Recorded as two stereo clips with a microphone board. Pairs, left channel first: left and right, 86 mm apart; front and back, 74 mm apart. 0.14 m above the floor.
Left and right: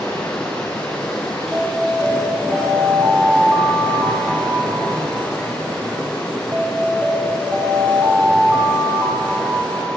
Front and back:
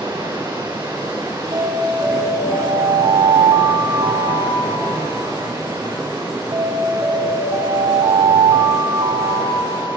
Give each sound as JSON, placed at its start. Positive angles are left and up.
{"t": 0.0, "sound": "running water", "azimuth_deg": 165, "distance_m": 8.5}
{"t": 1.5, "sound": "an alarm", "azimuth_deg": -155, "distance_m": 6.5}